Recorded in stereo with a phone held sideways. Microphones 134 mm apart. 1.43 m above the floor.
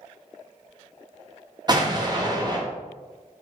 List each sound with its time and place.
1.7 s an explosion: 30° right (ahead or behind), 0.7 m